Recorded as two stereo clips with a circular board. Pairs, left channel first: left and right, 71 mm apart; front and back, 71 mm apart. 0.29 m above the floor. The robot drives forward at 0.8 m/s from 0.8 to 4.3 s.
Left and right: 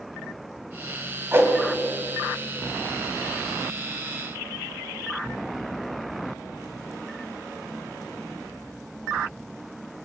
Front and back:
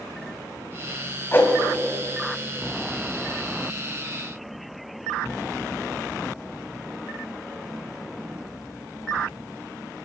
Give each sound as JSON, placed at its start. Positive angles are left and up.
{"t": 1.3, "sound": "a whoosh", "azimuth_deg": -45, "distance_m": 1.5}